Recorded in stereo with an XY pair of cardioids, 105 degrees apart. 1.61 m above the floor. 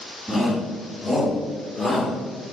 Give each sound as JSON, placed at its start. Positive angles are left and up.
{"t": 0.3, "sound": "a shout", "azimuth_deg": -5, "distance_m": 2.5}